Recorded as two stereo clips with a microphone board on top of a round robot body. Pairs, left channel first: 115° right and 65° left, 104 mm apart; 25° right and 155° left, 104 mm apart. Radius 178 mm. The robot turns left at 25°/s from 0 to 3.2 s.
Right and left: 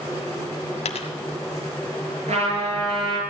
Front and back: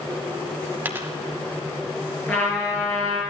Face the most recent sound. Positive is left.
turn(degrees=30)